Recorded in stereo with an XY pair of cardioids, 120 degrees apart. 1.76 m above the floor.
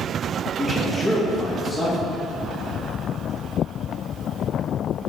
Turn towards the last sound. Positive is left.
turn(degrees=0)